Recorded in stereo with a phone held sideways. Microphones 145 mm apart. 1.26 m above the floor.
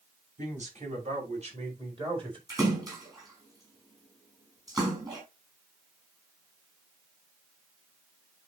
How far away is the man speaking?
About 5.5 m.